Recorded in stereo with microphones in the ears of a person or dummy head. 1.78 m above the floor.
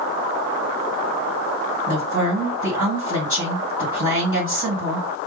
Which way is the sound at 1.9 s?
15° right (ahead or behind).